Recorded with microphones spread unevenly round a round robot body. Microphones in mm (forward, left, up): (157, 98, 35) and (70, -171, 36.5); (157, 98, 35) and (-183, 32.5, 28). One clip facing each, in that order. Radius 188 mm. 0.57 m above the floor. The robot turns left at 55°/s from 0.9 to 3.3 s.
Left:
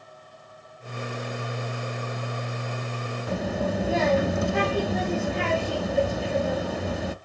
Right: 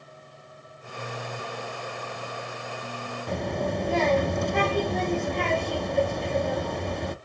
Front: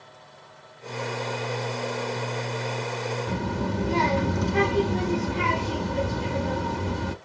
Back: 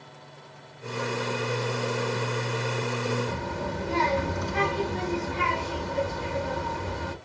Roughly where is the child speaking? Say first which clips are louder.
Left 1 dB, front 4 dB; ahead.